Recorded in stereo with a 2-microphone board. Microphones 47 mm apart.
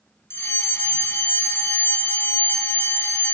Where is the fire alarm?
65° left (ahead or behind), 4.5 m.